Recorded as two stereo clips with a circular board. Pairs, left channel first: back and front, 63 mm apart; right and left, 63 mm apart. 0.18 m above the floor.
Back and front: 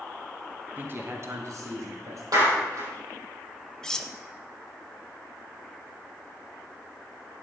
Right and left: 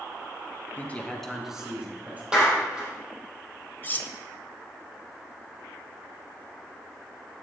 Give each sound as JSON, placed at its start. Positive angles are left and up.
{"t": 0.8, "sound": "a man speaking", "azimuth_deg": -45, "distance_m": 1.4}
{"t": 2.3, "sound": "a clap", "azimuth_deg": 10, "distance_m": 4.5}
{"t": 3.8, "sound": "cutlery clinking", "azimuth_deg": -110, "distance_m": 0.7}